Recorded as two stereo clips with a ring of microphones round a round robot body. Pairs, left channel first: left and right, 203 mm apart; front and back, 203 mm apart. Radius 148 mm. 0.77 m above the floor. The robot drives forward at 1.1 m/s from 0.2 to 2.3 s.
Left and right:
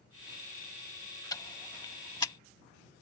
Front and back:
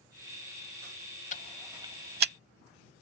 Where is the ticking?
25° left; by 2.3 s 165° left.